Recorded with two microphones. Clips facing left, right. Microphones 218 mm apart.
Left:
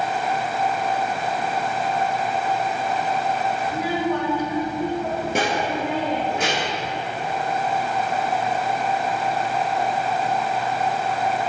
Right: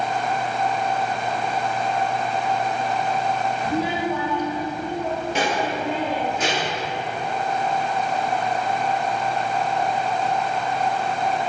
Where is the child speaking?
40° right (ahead or behind), 0.9 m; by 6.9 s 65° left (ahead or behind), 3 m.